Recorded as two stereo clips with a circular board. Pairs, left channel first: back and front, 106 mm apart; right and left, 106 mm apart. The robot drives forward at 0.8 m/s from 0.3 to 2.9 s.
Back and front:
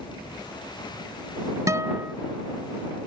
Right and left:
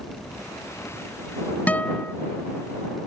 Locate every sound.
1.7 s a guitar: 25° right; by 2.1 s 40° right